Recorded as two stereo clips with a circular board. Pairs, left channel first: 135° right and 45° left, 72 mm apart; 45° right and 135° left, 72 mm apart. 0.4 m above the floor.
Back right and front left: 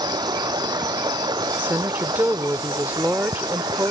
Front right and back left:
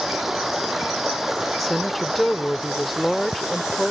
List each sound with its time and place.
0.0 s running water: 50° left
1.6 s a woman speaking: 45° left